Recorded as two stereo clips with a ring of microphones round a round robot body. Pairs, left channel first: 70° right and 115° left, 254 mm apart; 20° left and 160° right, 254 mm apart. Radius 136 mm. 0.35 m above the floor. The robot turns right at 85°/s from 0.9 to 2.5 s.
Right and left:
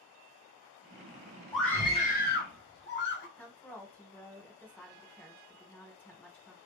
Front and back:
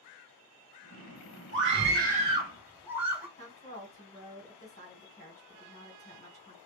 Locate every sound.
1.5 s a scream: 160° right, 1.7 m; by 3.3 s 80° right, 1.7 m
3.4 s a woman speaking: 10° left, 1.5 m